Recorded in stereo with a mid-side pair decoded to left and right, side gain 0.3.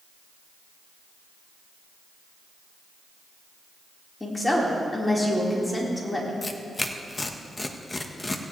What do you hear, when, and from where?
4.2 s a woman speaking: 20° left, 4 m
6.4 s tearing paper: 25° left, 1.3 m